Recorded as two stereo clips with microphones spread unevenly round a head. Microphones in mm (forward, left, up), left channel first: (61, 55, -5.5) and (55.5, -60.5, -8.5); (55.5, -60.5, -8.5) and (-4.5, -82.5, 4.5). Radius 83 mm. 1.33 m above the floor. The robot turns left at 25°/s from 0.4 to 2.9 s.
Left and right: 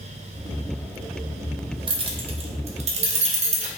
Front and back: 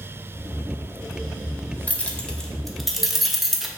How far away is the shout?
No shout in this recording.